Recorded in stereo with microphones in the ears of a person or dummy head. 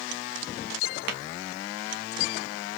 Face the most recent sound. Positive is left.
turn(degrees=-55)  # may be behind; listen again after turning